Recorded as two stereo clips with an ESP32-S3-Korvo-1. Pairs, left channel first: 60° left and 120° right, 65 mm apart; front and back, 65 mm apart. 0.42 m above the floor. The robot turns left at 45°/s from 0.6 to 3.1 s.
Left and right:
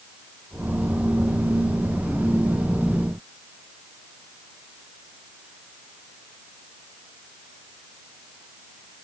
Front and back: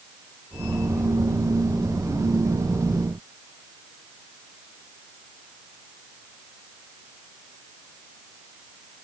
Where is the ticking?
I don't hear ticking.